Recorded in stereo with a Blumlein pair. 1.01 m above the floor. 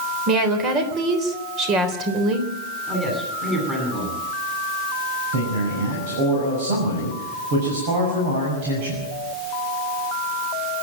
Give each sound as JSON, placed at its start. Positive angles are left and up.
{"t": 0.3, "sound": "a woman speaking", "azimuth_deg": -30, "distance_m": 3.5}
{"t": 2.9, "sound": "a man speaking", "azimuth_deg": -15, "distance_m": 9.0}
{"t": 5.3, "sound": "a man speaking", "azimuth_deg": -55, "distance_m": 6.5}